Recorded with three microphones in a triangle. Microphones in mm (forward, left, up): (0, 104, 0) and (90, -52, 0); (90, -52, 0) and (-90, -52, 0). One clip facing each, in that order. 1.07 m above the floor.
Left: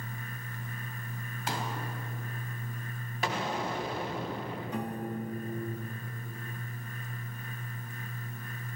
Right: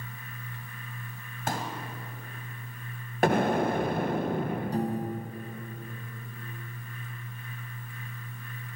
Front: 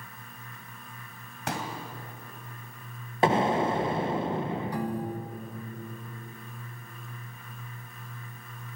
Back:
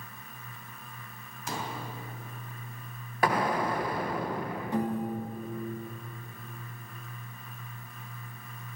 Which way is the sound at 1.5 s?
20° right.